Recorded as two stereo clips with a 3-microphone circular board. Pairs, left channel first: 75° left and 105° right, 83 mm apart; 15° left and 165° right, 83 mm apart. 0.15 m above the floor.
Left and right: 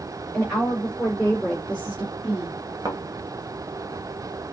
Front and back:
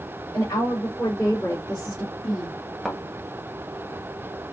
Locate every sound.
0.3 s a woman speaking: 5° left, 3 m; by 2.5 s 10° left, 1.9 m
2.9 s a thud: 75° right, 1.1 m